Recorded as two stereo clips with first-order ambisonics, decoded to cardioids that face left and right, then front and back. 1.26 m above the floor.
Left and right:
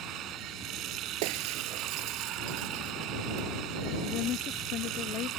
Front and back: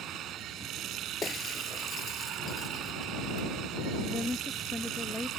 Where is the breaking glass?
75° right.